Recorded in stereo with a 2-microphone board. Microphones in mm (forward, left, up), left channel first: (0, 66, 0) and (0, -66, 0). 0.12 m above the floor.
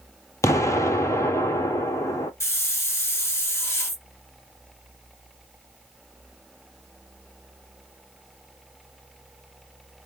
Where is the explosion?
25° left (ahead or behind), 0.6 m.